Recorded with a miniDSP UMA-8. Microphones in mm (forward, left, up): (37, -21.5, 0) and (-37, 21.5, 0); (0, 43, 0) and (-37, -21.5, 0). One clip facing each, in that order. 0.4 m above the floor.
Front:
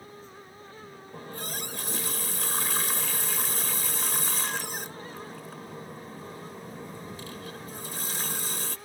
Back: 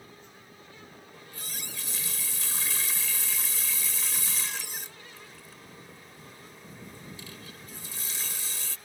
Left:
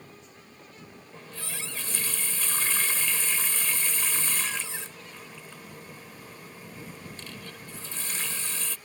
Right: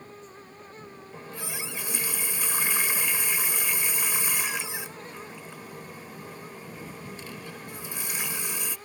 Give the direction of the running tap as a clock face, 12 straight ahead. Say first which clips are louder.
Front 10 dB, right 3 dB; 2 o'clock.